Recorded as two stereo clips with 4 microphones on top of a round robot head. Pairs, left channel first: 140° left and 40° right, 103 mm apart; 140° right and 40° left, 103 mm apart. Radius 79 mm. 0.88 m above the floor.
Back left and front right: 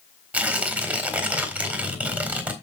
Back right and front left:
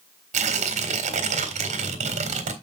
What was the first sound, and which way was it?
Tearing paper, 35° left.